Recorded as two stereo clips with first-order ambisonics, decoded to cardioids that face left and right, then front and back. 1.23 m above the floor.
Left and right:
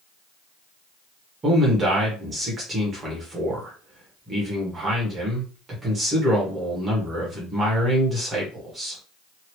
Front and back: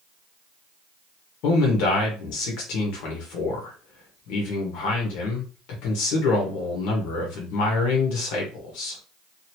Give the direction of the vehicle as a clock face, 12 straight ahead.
No vehicle in this recording.